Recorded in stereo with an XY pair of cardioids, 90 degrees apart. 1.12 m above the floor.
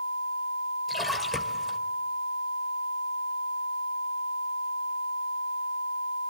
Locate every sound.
0.9 s a splash: 15° left, 2.5 m